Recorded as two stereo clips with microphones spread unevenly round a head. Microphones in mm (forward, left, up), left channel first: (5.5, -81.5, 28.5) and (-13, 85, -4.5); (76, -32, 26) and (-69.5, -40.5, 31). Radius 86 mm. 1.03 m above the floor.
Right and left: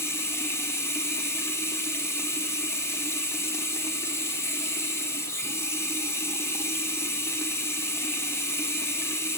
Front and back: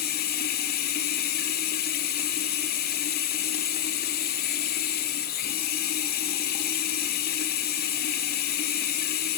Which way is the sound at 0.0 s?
5° right.